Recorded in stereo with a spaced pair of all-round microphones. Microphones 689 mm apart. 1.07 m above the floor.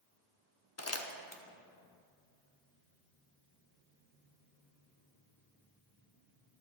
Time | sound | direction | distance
0.8 | crumpling | 25° left (ahead or behind) | 0.7 m